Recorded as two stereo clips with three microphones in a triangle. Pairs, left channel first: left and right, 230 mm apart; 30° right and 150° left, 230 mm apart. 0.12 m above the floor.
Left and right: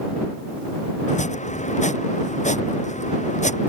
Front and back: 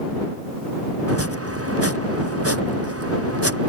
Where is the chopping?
150° left.